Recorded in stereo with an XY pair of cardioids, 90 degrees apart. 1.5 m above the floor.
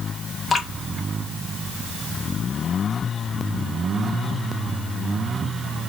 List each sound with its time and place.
0.5 s dripping: 35° left, 1.8 m